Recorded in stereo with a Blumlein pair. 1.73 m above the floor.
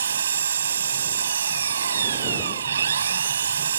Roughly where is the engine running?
Ahead right.